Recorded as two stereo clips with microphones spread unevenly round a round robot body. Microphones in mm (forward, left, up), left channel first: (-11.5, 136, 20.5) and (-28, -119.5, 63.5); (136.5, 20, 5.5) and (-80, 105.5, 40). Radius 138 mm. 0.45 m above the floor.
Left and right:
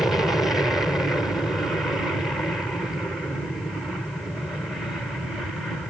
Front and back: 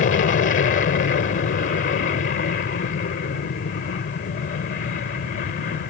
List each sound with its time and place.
0.0 s an aircraft: 5° left